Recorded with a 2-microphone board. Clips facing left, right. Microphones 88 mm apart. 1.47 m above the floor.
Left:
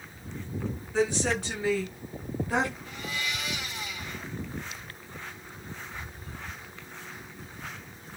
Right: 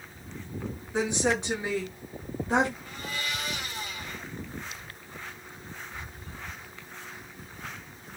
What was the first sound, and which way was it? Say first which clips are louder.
A woman speaking: even; 20° right (ahead or behind).